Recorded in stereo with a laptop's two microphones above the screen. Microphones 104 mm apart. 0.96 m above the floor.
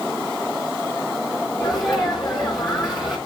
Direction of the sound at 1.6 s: 35° left (ahead or behind).